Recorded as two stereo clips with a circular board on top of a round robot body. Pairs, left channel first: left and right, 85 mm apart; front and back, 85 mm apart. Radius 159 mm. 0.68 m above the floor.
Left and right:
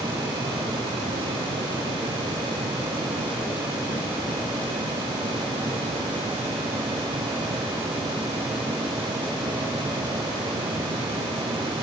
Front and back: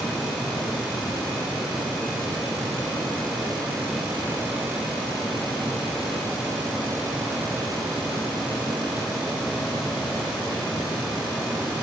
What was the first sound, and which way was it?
Only background noise.